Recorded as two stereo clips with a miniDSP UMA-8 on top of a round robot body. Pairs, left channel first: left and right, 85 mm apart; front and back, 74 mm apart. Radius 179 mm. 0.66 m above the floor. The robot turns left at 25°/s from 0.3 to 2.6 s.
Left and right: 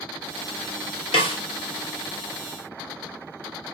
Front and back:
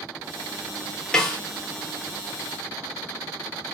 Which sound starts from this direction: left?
A snare drum, at 1.1 s.